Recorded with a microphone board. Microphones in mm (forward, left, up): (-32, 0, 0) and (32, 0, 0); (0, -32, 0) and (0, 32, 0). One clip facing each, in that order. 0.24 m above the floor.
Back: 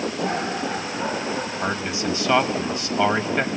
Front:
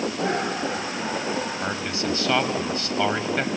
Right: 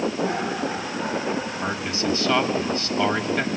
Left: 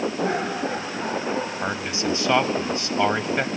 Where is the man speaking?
125° left, 1.0 m.